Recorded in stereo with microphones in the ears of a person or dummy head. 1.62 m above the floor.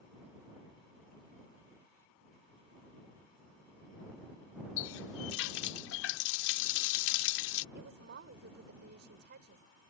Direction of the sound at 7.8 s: 65° right (ahead or behind).